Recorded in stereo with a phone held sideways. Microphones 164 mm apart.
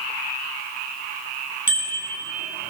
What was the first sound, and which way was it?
A bicycle bell, 55° right (ahead or behind).